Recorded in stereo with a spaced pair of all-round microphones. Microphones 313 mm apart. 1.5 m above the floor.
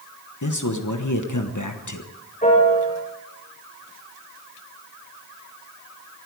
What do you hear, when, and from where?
0.4 s a man speaking: 65° left (ahead or behind), 1.2 m
2.4 s a piano: 25° left (ahead or behind), 8 m